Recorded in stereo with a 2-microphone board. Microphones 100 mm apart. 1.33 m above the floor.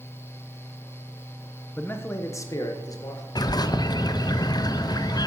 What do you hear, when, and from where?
1.8 s a man speaking: 20° left (ahead or behind), 1.1 m; by 3.2 s 40° left (ahead or behind), 1.9 m
3.4 s a bird: 45° left (ahead or behind), 0.6 m